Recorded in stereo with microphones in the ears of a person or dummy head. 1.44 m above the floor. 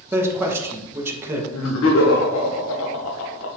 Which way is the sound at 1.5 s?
85° left.